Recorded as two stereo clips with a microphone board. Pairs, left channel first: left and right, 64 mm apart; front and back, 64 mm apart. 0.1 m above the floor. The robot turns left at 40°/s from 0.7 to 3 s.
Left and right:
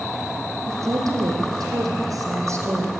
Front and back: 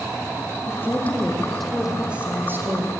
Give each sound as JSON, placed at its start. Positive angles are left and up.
{"t": 0.7, "sound": "a woman speaking", "azimuth_deg": -50, "distance_m": 4.5}